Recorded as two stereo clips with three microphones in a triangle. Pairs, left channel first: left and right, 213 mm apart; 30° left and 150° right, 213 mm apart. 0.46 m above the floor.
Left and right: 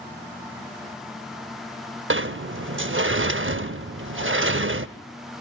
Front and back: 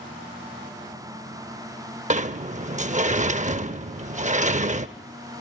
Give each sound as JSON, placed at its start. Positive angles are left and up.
{"t": 2.1, "sound": "a sliding door", "azimuth_deg": -95, "distance_m": 0.6}